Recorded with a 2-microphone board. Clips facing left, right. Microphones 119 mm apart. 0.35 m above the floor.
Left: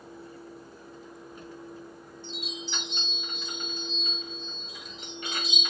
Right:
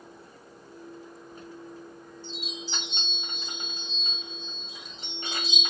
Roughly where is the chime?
Right.